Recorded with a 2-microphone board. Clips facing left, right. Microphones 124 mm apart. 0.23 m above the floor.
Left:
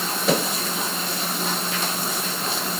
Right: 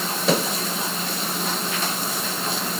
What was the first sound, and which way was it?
Only background noise.